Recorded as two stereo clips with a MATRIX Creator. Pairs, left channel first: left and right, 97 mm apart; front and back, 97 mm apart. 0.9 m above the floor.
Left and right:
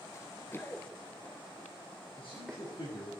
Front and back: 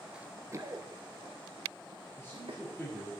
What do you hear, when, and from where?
0.1 s running footsteps: 105° left, 1.0 m; by 2.6 s 175° left, 3 m
2.2 s a man speaking: 65° left, 6.5 m